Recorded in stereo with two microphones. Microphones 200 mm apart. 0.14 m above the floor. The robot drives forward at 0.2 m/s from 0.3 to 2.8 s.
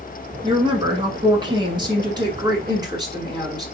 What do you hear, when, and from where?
0.4 s a woman speaking: 20° right (ahead or behind), 1.2 m